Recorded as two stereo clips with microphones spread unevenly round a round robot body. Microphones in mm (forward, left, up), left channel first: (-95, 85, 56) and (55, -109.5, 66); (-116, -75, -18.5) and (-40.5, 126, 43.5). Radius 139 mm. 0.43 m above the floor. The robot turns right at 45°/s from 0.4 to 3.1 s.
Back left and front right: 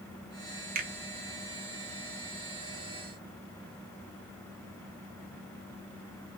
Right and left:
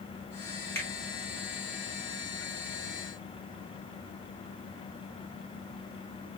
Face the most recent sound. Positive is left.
turn(degrees=40)